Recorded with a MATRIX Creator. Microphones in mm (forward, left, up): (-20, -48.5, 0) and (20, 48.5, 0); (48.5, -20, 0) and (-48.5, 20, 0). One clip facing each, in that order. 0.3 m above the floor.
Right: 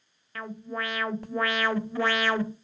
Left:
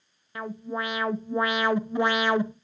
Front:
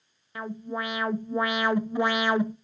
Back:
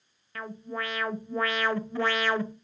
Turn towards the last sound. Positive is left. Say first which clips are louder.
# left 3 dB, front 3 dB
turn(degrees=25)